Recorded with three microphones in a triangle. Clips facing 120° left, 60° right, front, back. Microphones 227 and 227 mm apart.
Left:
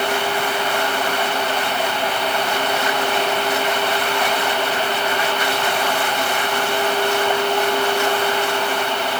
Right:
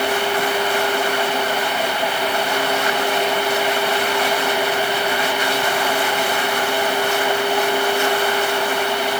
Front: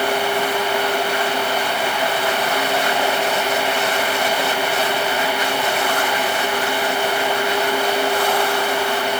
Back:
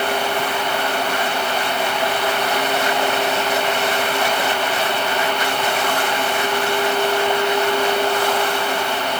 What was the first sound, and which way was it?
Only background noise.